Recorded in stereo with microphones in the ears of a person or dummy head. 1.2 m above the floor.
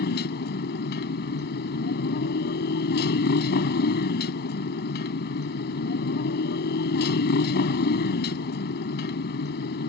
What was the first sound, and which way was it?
A motorcycle, 60° left (ahead or behind).